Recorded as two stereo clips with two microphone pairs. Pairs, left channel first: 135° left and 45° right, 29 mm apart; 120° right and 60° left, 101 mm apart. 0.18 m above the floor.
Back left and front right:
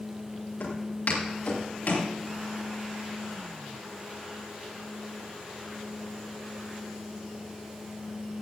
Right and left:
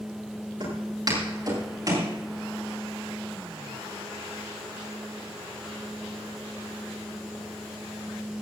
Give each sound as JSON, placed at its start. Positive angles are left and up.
{"t": 0.6, "sound": "footsteps", "azimuth_deg": 105, "distance_m": 9.5}